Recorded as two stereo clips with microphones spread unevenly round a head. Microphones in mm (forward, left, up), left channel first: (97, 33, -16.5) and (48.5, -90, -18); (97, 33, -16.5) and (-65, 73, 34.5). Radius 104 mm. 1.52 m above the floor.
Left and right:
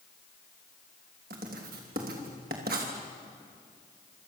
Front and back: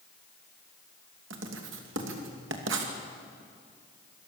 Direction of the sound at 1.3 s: 155° right.